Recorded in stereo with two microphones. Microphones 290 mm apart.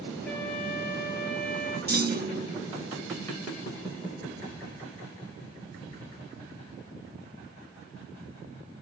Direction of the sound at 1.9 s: 35° right (ahead or behind).